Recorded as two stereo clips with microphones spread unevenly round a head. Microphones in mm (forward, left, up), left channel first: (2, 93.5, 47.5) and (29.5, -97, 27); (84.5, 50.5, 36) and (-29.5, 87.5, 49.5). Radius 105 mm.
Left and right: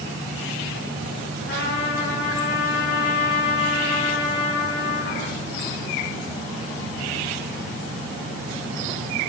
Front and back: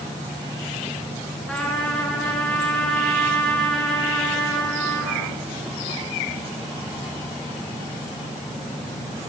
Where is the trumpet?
70° left, 7 m.